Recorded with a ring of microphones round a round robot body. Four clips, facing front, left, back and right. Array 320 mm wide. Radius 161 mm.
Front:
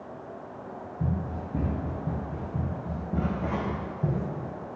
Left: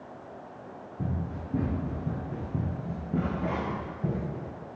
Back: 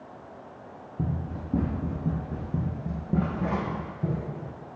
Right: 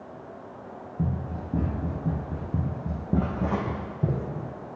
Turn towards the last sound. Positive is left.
turn(degrees=-75)